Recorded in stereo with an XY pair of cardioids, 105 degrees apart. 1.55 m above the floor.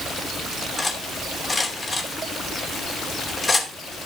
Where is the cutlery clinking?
20° left, 2.5 m.